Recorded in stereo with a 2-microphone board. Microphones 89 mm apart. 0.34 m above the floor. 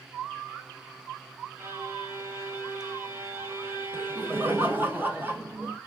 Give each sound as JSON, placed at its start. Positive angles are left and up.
{"t": 1.6, "sound": "a violin", "side_deg": -30, "distance_m": 0.7}
{"t": 3.9, "sound": "laughter", "side_deg": -25, "distance_m": 1.0}